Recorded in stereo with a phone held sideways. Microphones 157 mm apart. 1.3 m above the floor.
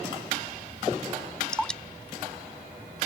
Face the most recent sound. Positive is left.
turn(degrees=5)  # may be behind; listen again after turning